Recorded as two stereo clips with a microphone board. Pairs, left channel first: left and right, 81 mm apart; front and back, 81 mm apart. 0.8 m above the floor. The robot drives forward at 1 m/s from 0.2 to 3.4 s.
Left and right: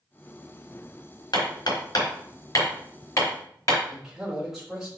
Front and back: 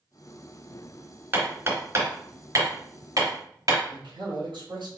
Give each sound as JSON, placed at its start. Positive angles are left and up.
{"t": 1.3, "sound": "hammering", "azimuth_deg": 115, "distance_m": 3.0}
{"t": 3.9, "sound": "a man speaking", "azimuth_deg": -175, "distance_m": 3.5}